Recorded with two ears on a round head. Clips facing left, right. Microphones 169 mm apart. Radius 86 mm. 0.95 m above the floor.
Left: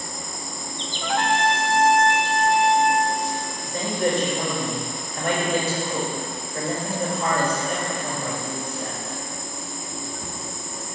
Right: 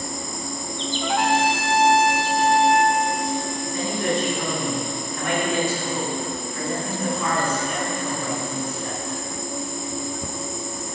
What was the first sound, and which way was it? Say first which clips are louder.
An insect: right 4 dB; 85° right.